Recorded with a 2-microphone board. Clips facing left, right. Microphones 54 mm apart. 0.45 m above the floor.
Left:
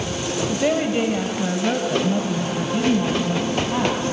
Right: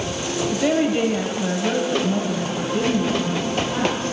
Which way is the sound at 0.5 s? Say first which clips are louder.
Right 1 dB; 5° left (ahead or behind).